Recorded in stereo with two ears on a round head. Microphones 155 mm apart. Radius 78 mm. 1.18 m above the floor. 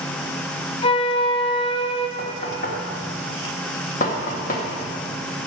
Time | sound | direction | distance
0.8 | a flute | 30° left (ahead or behind) | 0.7 m
2.2 | knocking | 45° left (ahead or behind) | 1.6 m